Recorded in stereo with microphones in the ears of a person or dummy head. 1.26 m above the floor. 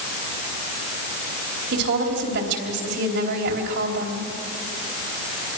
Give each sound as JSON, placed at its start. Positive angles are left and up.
{"t": 1.7, "sound": "a woman speaking", "side_deg": -65, "distance_m": 4.0}